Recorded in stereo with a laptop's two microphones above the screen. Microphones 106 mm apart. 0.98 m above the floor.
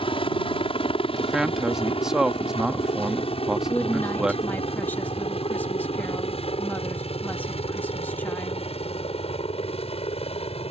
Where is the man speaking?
5° right (ahead or behind).